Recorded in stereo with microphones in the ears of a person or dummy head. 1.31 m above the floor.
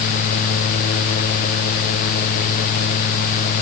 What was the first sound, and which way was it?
Only background noise.